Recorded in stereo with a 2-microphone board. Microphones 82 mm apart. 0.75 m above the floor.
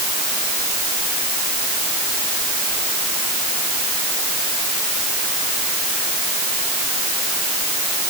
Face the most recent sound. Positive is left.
No sound to turn to.